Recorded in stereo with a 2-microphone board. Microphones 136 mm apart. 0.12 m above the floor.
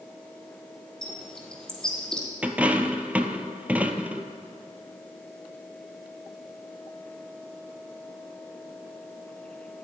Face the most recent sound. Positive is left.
turn(degrees=-10)  # may be behind; listen again after turning